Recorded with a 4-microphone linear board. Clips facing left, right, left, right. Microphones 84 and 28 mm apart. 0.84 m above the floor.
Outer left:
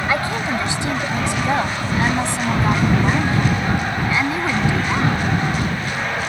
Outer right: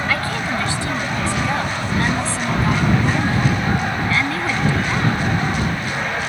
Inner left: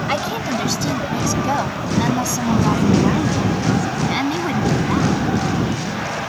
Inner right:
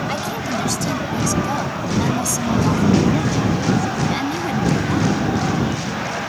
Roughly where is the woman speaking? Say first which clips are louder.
Outer left 4 dB, inner left 2 dB; left.